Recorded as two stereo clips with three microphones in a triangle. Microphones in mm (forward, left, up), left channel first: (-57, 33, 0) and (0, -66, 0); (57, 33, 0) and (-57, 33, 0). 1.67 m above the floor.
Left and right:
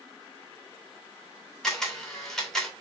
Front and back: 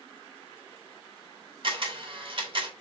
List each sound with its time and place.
1.6 s a camera shutter: 155° right, 2.5 m